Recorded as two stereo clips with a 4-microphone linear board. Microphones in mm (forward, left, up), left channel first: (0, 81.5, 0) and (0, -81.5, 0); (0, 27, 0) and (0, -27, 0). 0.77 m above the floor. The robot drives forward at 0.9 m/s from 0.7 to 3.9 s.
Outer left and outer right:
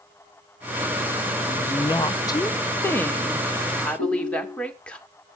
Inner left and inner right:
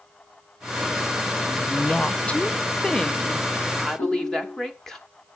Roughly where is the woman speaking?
Centre.